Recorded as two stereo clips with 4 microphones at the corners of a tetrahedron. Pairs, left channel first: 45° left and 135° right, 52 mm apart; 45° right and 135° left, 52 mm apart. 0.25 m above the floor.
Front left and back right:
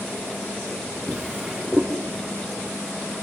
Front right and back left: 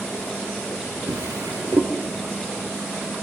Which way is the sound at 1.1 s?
130° left.